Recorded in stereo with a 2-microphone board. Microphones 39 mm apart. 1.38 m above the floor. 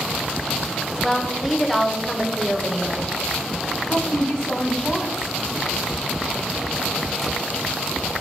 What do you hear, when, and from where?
1.0 s a woman speaking: 5° left (ahead or behind), 0.5 m
3.9 s a woman speaking: 20° left (ahead or behind), 0.7 m